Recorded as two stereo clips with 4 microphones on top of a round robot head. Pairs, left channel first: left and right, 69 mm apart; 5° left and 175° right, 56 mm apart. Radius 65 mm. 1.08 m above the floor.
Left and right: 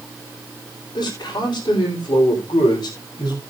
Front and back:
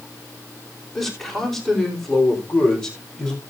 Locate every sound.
0.9 s a man speaking: 75° left, 3.5 m; by 3.4 s 60° left, 4 m